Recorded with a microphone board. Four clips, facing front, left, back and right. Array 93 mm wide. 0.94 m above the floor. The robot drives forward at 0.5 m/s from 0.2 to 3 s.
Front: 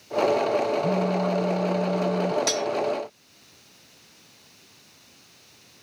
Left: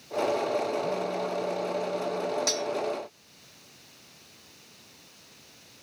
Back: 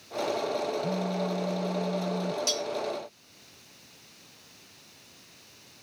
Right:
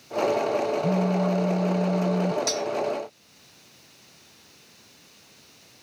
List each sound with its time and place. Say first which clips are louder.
0.8 s a phone buzzing: right 6 dB, front 6 dB; 70° right; by 2.4 s 75° right
2.5 s cutlery clinking: right 3 dB, front 6 dB; straight ahead